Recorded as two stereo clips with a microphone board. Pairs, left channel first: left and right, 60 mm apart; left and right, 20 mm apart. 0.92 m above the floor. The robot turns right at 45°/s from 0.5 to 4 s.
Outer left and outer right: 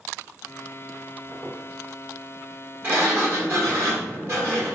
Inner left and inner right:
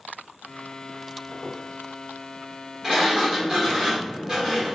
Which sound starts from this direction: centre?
A squeak, at 1.3 s.